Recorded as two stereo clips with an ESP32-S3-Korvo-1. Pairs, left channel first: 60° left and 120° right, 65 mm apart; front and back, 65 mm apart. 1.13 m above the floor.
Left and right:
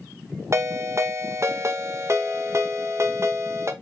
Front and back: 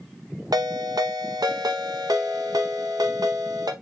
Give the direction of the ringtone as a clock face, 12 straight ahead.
6 o'clock.